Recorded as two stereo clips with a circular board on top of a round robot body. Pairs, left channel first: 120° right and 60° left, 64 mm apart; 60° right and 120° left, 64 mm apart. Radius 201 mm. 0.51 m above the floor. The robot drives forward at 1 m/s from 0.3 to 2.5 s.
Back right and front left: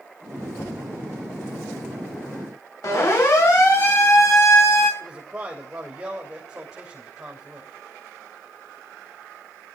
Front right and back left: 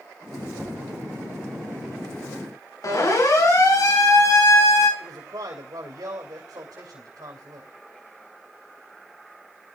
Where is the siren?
90° right, 9 m; by 4.9 s 85° right, 7 m.